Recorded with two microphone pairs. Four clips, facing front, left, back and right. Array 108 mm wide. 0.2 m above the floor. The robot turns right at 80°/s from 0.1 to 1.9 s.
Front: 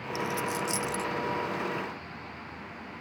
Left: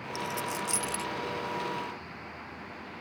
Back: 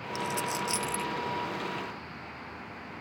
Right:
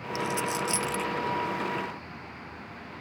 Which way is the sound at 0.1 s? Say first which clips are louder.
Right 5 dB, front 1 dB; 150° right.